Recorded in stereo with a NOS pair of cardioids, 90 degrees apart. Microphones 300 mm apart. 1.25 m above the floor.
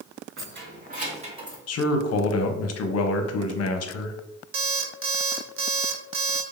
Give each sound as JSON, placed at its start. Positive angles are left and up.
{"t": 0.4, "sound": "keys jangling", "azimuth_deg": -45, "distance_m": 1.7}
{"t": 1.7, "sound": "a man speaking", "azimuth_deg": 55, "distance_m": 0.9}
{"t": 4.5, "sound": "an alarm clock", "azimuth_deg": -50, "distance_m": 0.9}